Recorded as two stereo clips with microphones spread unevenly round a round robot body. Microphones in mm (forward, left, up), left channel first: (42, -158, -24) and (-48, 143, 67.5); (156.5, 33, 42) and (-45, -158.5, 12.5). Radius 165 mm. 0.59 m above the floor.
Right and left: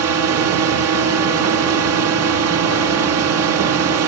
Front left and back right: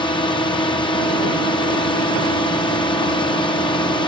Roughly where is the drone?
Left.